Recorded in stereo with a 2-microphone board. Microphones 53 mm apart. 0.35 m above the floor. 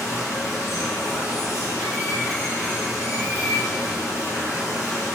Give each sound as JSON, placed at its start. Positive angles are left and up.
{"t": 0.0, "sound": "running water", "side_deg": 60, "distance_m": 1.5}